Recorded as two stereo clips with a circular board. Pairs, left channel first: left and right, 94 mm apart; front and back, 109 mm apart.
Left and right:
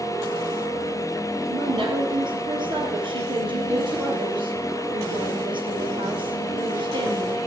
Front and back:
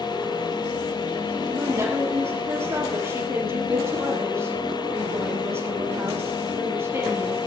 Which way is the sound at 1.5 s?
115° right.